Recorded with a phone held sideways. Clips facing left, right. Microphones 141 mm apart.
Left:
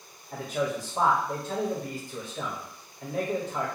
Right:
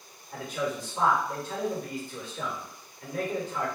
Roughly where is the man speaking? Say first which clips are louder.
Left 2 dB; left.